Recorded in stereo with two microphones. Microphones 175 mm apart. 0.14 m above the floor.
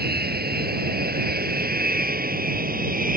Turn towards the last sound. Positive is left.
turn(degrees=-50)  # may be behind; listen again after turning